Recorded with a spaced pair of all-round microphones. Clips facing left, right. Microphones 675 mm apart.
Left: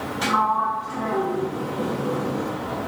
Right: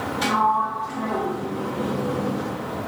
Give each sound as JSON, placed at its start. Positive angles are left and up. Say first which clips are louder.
{"t": 0.2, "sound": "a sliding door", "louder": "right 1 dB", "side_deg": 0, "distance_m": 1.0}